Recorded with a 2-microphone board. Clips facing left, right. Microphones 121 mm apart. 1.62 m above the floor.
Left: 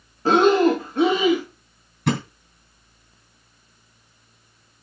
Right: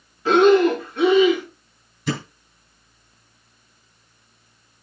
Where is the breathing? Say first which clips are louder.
Right 2 dB; 40° left (ahead or behind), 1.7 m.